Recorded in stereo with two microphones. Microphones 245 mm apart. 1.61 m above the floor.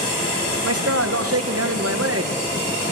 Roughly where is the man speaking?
Right.